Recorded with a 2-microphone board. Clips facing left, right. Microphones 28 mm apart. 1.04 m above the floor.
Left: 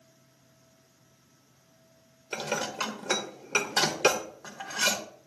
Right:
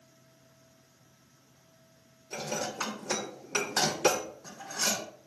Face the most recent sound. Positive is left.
turn(degrees=70)  # may be behind; listen again after turning